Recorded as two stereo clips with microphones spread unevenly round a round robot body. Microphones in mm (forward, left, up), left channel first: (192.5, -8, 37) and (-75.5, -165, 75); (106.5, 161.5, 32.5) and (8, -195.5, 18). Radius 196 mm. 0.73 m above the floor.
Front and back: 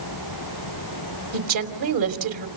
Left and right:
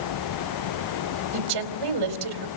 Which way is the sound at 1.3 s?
140° right.